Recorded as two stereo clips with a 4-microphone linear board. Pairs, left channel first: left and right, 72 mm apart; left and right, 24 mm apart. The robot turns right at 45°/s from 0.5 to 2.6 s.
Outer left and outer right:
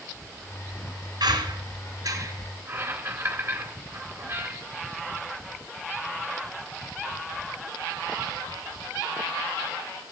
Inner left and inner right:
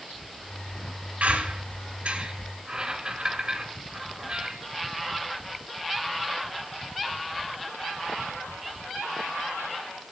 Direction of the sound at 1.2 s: 75° right (ahead or behind).